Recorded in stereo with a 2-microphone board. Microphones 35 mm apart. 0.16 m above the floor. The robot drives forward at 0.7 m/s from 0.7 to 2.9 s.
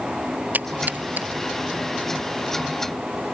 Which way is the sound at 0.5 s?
55° right (ahead or behind).